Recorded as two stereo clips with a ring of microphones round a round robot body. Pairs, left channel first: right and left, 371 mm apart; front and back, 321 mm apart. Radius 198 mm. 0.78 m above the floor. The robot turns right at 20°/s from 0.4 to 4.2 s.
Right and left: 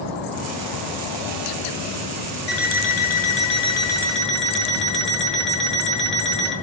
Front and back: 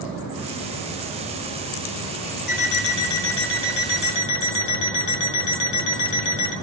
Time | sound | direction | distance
2.5 | an alarm clock | 35° right | 4 m